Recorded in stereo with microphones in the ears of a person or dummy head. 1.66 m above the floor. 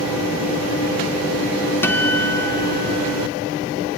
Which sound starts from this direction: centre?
A guitar, at 1.8 s.